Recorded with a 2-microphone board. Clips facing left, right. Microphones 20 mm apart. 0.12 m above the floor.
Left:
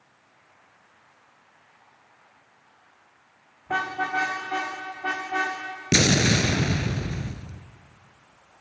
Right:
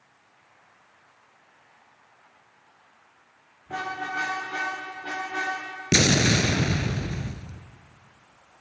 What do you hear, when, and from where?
3.7 s a car horn: 75° left (ahead or behind), 5 m; by 5.6 s 85° left, 6 m
5.9 s an explosion: 5° right (ahead or behind), 0.6 m